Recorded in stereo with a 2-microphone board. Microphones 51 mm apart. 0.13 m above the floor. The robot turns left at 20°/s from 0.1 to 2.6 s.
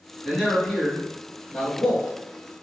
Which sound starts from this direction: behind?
A man speaking, at 0.2 s.